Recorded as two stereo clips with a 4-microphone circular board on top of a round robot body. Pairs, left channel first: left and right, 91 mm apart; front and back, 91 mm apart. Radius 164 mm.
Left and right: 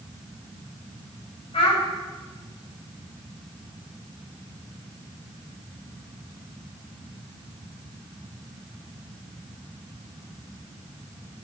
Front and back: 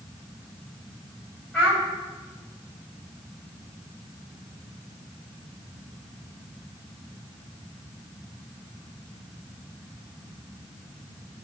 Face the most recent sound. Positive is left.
turn(degrees=85)